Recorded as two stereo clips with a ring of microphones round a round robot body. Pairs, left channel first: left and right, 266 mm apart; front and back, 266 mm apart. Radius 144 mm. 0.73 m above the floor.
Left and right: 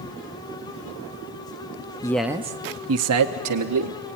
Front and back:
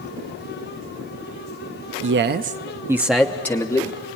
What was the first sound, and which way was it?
A man speaking, 160° left.